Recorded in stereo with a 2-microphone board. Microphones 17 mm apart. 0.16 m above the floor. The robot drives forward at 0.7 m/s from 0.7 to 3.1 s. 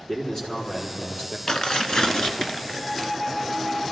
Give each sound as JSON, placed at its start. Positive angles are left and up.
{"t": 0.1, "sound": "a man speaking", "side_deg": 40, "distance_m": 4.0}
{"t": 1.5, "sound": "tearing paper", "side_deg": 50, "distance_m": 0.9}